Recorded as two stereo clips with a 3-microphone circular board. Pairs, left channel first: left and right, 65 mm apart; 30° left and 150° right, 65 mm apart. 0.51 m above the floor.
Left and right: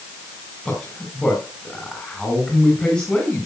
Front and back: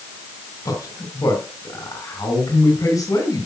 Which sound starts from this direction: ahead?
A man speaking, at 0.7 s.